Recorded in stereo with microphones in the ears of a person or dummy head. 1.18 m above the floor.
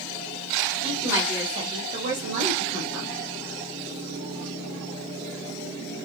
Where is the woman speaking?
10° right (ahead or behind), 1.1 m; by 3.1 s 85° right, 0.8 m.